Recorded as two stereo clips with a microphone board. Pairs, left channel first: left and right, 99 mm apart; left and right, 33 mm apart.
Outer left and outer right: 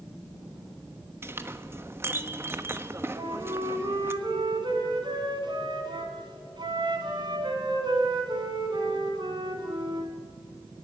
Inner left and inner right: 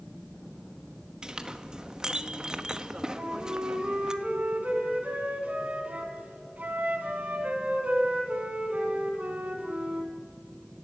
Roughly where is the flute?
Right.